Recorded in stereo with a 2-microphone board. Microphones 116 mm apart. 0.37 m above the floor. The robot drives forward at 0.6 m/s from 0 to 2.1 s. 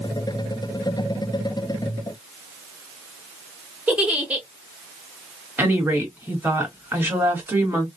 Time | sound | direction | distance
3.9 | a giggle | 15° right (ahead or behind) | 1.1 m
5.6 | a woman speaking | 15° right (ahead or behind) | 2.0 m